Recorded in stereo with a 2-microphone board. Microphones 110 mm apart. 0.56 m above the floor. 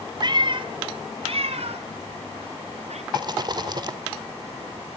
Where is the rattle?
40° right (ahead or behind), 2.0 m.